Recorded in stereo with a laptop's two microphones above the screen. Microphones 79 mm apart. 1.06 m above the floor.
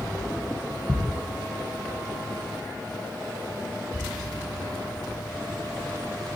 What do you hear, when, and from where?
0.9 s ticking: 65° left (ahead or behind), 3 m